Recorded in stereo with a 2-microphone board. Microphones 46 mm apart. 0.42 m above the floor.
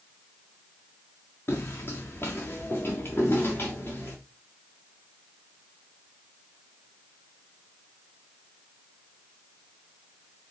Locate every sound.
1.5 s footsteps: 55° left (ahead or behind), 2.0 m; by 4.2 s 50° left (ahead or behind), 3.5 m